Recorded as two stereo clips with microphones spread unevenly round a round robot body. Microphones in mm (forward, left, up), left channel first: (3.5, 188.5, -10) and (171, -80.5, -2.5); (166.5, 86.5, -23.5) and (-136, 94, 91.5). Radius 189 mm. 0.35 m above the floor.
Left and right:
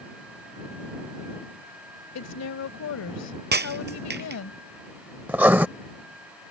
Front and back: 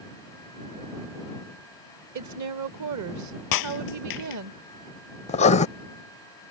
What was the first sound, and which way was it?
A woman speaking, 145° left.